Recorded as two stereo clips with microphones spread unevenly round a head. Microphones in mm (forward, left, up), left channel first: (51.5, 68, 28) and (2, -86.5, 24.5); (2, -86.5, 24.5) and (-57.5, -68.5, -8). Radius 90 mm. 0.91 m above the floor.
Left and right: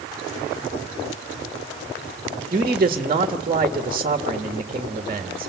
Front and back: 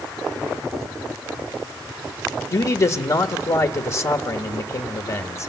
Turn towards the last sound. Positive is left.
turn(degrees=-50)